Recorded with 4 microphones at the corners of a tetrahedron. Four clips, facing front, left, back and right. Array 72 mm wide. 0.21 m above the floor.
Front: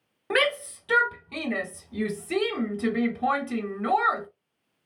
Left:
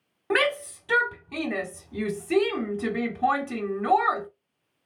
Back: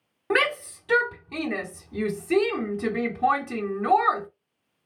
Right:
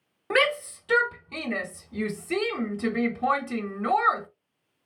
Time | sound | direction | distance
0.3 | a shout | 115° left | 1.5 m